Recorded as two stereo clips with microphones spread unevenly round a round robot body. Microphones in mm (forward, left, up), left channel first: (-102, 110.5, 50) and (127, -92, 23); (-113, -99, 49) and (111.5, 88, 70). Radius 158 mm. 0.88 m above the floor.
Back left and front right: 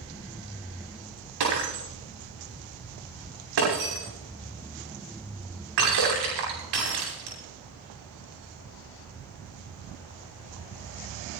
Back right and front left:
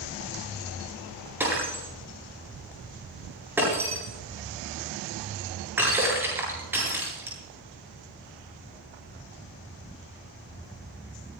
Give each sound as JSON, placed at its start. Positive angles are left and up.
{"t": 1.4, "sound": "breaking glass", "azimuth_deg": -45, "distance_m": 9.5}